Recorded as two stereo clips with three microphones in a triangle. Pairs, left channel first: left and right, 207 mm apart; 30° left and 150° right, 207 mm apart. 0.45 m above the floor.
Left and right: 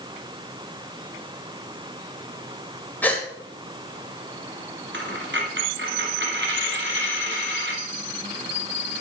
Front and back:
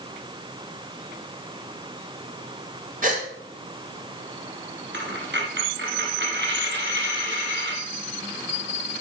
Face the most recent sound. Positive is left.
turn(degrees=-120)